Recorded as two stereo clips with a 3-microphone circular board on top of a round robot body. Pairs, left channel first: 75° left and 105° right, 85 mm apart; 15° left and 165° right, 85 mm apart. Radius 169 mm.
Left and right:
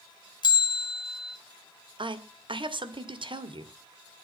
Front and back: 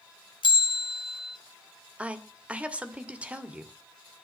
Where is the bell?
40° left, 1.1 m.